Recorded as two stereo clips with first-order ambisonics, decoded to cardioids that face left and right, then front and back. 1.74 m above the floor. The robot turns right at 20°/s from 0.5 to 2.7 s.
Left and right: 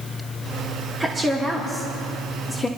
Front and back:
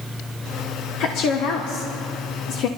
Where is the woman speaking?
20° right, 1.0 m; by 2.7 s 15° left, 1.0 m.